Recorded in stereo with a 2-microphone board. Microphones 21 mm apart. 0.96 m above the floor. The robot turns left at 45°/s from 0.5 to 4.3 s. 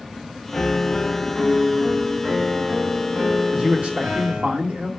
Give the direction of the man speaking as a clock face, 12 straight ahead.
2 o'clock.